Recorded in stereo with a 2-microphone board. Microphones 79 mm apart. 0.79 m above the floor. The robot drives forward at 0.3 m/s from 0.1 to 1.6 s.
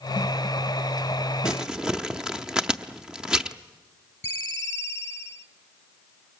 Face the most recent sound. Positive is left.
turn(degrees=25)  # may be behind; listen again after turning